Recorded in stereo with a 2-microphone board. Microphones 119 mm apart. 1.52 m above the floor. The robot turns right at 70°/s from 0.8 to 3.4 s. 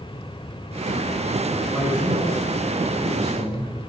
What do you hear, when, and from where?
1.7 s a man speaking: centre (ahead or behind), 7.5 m; by 3.7 s 65° right (ahead or behind), 7.5 m